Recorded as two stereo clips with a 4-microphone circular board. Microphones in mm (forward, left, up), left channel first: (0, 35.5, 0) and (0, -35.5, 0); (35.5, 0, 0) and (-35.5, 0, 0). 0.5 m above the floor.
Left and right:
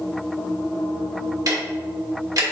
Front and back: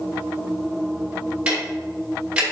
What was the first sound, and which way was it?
Ticking, 105° right.